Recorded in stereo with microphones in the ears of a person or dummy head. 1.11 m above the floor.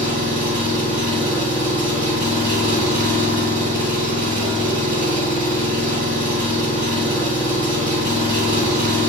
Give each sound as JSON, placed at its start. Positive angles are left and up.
{"t": 0.0, "sound": "an engine running", "side_deg": -5, "distance_m": 1.7}